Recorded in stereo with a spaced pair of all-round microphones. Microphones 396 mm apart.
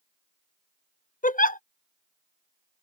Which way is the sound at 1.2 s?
20° left (ahead or behind).